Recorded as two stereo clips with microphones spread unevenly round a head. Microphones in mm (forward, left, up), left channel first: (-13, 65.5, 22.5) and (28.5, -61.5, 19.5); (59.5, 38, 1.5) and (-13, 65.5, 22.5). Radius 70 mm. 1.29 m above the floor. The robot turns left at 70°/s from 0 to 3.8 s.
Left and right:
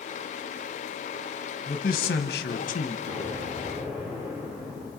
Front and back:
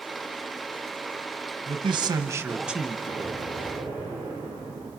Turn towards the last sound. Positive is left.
turn(degrees=-130)